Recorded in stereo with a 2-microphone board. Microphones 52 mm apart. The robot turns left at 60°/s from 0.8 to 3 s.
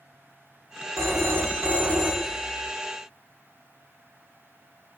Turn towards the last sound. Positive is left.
turn(degrees=135)